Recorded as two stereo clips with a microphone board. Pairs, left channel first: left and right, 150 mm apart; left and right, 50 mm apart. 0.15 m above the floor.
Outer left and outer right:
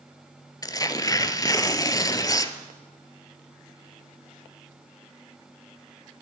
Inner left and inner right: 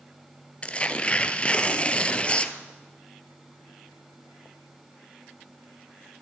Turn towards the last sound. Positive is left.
turn(degrees=25)  # may be behind; listen again after turning